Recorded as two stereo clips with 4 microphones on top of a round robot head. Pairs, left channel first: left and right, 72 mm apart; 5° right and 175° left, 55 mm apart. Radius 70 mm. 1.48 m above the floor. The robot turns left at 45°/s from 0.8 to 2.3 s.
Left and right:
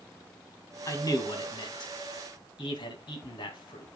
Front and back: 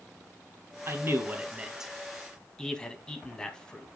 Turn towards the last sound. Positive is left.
turn(degrees=75)